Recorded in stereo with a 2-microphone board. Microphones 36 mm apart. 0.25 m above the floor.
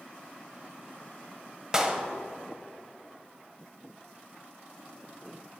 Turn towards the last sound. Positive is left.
turn(degrees=-15)  # may be behind; listen again after turning